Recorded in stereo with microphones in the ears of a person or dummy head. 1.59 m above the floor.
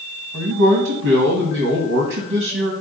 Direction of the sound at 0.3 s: 55° right (ahead or behind).